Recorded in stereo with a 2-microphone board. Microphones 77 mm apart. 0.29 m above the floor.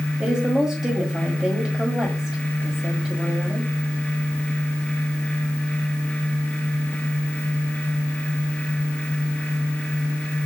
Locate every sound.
0.2 s a woman speaking: 10° right (ahead or behind), 1.5 m